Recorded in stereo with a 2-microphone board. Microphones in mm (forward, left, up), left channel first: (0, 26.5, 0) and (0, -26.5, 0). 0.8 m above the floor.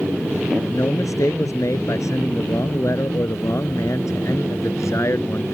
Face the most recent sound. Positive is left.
turn(degrees=60)  # may be behind; listen again after turning